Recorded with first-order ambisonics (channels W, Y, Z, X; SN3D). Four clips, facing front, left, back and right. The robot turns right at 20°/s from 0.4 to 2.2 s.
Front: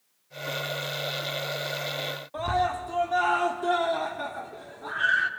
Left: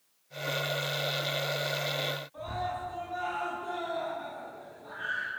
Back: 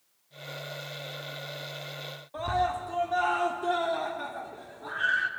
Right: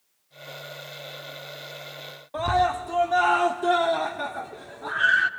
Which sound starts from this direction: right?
A scream, at 2.3 s.